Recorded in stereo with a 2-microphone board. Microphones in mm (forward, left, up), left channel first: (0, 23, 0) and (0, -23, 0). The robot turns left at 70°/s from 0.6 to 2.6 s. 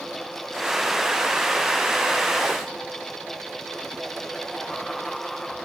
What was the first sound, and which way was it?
Only background noise.